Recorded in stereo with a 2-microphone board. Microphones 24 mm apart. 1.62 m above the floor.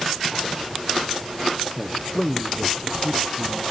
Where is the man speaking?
15° left (ahead or behind), 1.1 m.